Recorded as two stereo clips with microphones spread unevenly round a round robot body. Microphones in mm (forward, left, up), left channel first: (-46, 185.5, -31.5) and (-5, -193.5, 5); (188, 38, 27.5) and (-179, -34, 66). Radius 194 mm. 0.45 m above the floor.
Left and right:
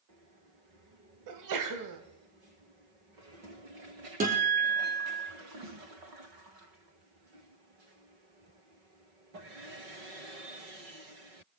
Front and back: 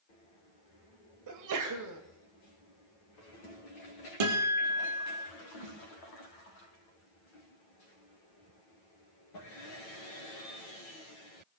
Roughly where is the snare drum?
Behind right.